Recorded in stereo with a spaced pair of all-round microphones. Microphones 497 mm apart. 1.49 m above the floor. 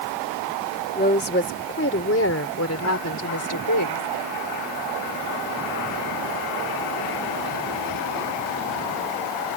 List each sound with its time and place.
0.9 s a woman speaking: 20° left (ahead or behind); by 4.1 s 40° left (ahead or behind)